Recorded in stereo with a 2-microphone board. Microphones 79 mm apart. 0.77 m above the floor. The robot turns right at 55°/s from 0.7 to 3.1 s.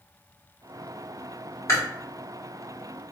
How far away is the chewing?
About 1.6 m.